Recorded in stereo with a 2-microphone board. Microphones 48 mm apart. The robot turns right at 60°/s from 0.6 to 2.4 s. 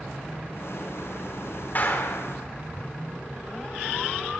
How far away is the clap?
About 3.5 m.